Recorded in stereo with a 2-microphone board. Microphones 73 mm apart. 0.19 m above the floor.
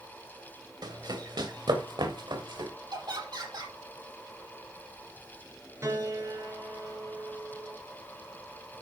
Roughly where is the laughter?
Right.